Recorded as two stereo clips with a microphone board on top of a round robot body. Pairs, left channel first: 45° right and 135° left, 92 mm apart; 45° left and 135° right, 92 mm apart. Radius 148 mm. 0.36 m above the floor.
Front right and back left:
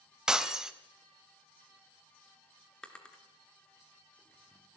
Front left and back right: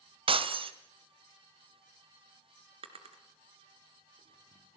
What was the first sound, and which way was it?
Breaking glass, 140° right.